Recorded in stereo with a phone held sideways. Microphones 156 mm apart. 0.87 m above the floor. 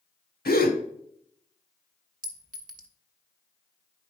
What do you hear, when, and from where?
0.5 s a gasp: 80° left, 1.3 m
2.2 s a clink: 65° right (ahead or behind), 0.9 m